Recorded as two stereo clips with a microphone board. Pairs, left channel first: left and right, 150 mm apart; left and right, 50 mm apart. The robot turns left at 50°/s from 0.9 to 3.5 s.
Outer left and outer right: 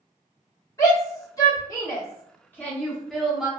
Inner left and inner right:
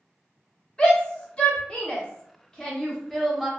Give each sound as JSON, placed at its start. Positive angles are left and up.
{"t": 0.8, "sound": "a shout", "side_deg": 20, "distance_m": 0.8}